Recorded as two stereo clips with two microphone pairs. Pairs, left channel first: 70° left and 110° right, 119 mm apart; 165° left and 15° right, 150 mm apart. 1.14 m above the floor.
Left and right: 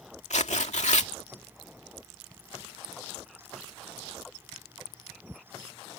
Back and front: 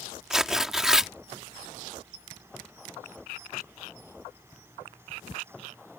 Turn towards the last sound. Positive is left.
turn(degrees=70)